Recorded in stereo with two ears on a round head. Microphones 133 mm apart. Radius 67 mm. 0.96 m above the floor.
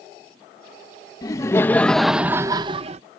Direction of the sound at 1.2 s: 25° left (ahead or behind).